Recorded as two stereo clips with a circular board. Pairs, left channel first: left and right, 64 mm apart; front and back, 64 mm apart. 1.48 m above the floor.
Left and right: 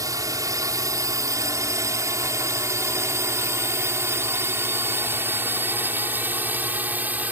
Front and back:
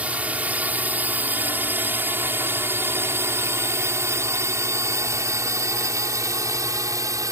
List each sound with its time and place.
0.0 s a drone: 110° right; by 7.3 s 150° right